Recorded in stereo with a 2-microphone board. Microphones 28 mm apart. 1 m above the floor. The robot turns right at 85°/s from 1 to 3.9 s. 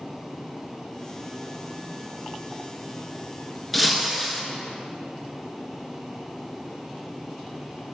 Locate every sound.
3.7 s breaking glass: 5° left (ahead or behind), 1.4 m; by 4.4 s 5° right (ahead or behind), 1.4 m